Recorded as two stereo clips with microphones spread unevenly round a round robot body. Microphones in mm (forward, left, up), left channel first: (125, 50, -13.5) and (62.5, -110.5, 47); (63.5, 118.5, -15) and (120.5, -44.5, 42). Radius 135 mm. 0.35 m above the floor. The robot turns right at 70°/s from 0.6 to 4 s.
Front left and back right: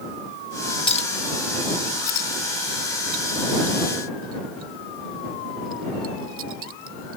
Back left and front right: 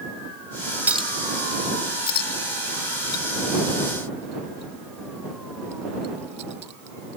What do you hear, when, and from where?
0.9 s a clink: 15° left; by 7.2 s 125° right